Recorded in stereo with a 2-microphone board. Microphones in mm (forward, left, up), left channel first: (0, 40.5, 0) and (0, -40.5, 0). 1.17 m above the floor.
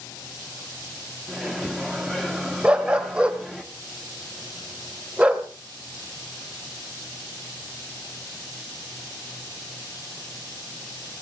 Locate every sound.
1.3 s a microwave: 5° left (ahead or behind), 1.5 m
2.6 s a dog barking: 15° right (ahead or behind), 1.3 m